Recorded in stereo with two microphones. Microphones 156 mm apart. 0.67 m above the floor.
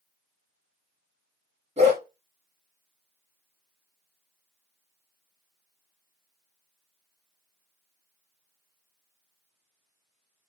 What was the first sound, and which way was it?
A dog barking, 40° right (ahead or behind).